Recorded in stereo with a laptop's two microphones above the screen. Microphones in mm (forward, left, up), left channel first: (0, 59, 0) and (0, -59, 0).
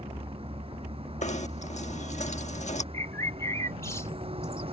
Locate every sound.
0.0 s a vehicle: 55° right (ahead or behind)
1.2 s knocking: 80° left
2.9 s a bird: 25° left (ahead or behind)